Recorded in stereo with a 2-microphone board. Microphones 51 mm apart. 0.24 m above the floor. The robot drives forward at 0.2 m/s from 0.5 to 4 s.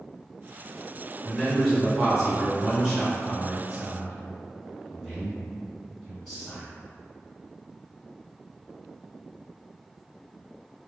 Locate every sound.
1.2 s a man speaking: centre (ahead or behind), 1.6 m